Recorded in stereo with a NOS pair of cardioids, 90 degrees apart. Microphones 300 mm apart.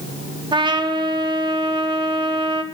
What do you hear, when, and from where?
0.5 s a trumpet: 15° right, 1.9 m